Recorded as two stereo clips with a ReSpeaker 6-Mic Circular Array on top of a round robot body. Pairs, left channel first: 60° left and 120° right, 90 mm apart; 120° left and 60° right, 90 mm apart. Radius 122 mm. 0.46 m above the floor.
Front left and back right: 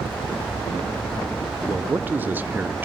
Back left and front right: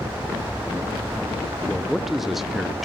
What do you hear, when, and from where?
1.7 s a man speaking: 145° right, 0.8 m